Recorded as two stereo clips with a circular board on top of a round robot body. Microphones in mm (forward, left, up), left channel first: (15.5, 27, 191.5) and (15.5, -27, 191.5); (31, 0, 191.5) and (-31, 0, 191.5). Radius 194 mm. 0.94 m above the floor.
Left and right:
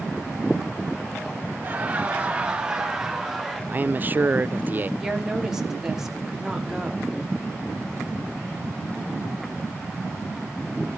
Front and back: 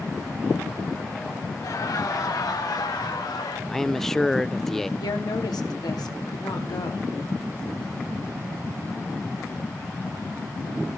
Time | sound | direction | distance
1.6 | laughter | 30° right | 2.5 m
3.7 | a man speaking | 80° right | 0.6 m
5.0 | a woman speaking | 5° right | 2.5 m